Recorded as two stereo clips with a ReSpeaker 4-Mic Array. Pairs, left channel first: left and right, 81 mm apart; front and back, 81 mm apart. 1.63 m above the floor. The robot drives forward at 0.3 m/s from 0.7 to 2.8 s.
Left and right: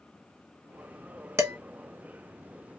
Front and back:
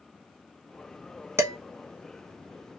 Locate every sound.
1.4 s dishes clattering: 135° right, 1.0 m; by 1.6 s 140° right, 1.1 m